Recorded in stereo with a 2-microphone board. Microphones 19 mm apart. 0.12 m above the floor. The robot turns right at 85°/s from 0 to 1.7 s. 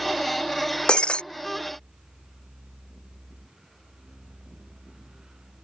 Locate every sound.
0.9 s breaking glass: 70° left (ahead or behind); by 1.2 s 80° left